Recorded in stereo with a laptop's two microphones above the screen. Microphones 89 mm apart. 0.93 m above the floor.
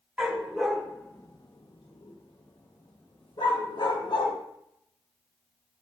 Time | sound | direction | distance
0.2 | a dog barking | 15° right (ahead or behind) | 1.0 m